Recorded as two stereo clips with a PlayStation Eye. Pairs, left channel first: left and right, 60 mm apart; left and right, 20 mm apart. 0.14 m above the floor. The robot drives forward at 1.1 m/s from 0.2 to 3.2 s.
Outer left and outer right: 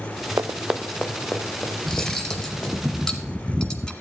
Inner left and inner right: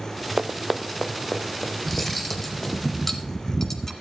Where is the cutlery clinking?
5° left (ahead or behind), 1.9 m; by 3.9 s 10° left (ahead or behind), 0.9 m.